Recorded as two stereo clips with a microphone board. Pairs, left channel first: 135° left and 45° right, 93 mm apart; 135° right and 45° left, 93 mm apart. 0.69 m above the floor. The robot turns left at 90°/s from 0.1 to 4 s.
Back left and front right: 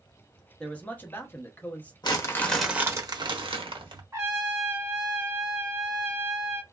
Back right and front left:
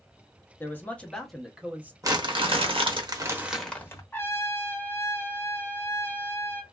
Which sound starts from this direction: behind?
A man speaking, at 0.6 s.